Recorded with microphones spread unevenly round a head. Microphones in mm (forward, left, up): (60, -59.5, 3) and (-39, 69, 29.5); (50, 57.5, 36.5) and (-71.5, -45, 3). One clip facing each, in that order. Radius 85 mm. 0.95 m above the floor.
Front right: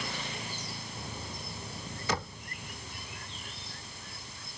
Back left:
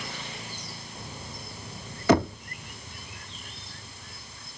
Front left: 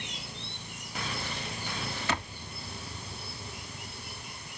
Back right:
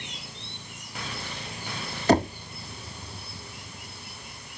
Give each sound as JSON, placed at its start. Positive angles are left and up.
{"t": 2.1, "sound": "knocking", "azimuth_deg": 170}